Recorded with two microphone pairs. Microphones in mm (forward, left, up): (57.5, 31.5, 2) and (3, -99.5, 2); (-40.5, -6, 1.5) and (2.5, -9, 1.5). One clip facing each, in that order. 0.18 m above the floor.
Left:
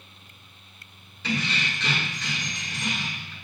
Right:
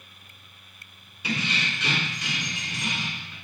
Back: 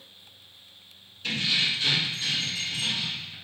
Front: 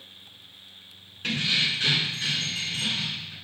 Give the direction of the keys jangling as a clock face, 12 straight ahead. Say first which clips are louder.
Left 1 dB, front 1 dB; 1 o'clock.